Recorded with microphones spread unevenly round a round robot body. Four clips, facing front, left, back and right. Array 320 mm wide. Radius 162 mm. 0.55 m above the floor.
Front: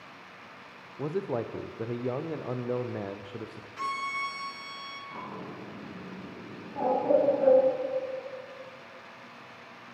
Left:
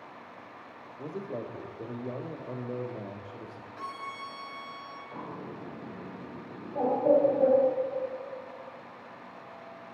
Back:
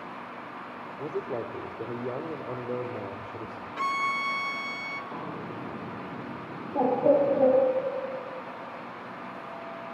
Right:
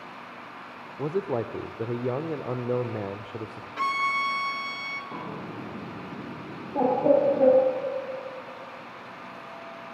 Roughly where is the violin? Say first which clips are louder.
Right 13 dB, back 4 dB; behind right.